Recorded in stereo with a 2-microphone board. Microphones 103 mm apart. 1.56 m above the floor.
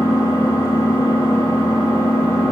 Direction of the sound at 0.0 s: 30° left (ahead or behind).